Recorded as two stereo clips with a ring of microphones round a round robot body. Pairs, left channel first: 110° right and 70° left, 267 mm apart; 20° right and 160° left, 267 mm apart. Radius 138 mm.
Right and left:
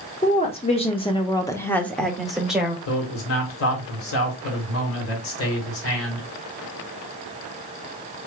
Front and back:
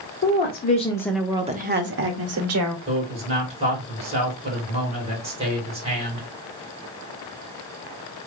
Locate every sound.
0.2 s a woman speaking: 50° right, 1.0 m; by 2.8 s 155° left, 1.4 m
2.9 s a man speaking: 140° right, 2 m